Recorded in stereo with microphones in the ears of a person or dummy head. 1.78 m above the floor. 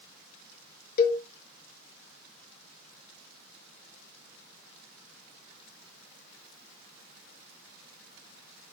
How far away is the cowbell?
About 0.6 m.